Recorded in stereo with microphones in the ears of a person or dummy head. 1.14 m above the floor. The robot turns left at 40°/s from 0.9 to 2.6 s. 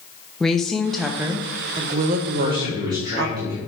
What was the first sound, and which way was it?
A woman speaking, straight ahead.